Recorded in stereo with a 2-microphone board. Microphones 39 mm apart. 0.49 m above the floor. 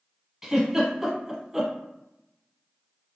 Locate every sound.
0.4 s a giggle: 10° right (ahead or behind), 1.0 m